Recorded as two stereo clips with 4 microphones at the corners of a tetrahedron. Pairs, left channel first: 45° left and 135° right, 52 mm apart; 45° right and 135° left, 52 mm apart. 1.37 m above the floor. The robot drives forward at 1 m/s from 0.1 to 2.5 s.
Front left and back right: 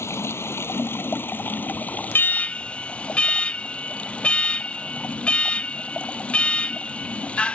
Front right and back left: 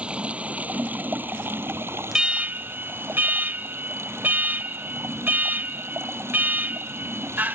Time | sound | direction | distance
0.0 | running water | 70° left | ?
2.1 | an alarm | 60° left | ?